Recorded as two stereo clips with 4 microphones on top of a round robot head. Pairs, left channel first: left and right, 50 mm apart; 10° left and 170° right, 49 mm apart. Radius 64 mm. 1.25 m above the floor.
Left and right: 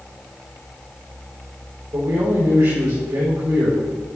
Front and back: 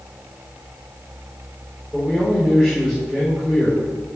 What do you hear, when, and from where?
1.9 s a man speaking: 90° right, 5.5 m